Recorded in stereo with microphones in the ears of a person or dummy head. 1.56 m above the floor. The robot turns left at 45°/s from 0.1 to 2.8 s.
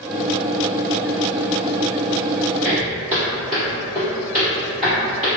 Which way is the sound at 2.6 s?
30° right (ahead or behind).